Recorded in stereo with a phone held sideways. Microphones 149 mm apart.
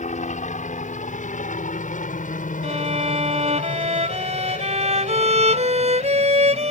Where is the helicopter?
55° left (ahead or behind); by 6.7 s 65° left (ahead or behind).